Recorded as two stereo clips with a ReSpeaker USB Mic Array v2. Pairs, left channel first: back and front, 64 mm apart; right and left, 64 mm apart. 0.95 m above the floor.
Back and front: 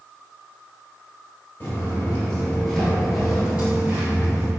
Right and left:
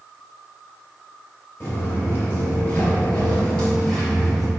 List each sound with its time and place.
1.6 s footsteps: 135° right, 1.3 m; by 4.5 s straight ahead, 1.1 m